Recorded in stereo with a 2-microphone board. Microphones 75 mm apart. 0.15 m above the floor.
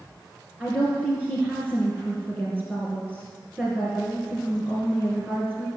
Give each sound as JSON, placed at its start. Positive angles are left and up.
{"t": 0.6, "sound": "a woman speaking", "side_deg": -20, "distance_m": 2.5}